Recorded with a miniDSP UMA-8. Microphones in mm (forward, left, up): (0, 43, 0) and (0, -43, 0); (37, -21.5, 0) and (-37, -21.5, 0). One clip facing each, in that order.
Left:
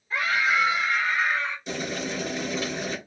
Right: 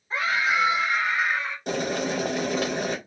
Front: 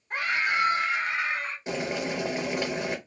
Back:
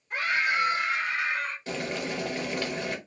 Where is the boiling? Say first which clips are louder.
Right 4 dB, front 6 dB; 70° right, 0.7 m.